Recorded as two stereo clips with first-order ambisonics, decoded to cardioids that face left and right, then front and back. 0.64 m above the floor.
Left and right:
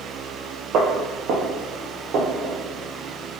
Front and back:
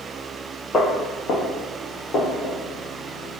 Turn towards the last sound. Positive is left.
turn(degrees=-45)